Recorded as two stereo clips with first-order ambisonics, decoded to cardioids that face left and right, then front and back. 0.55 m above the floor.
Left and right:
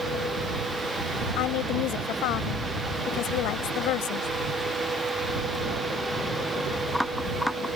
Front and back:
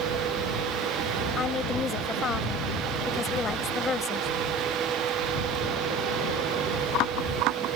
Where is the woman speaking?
65° left.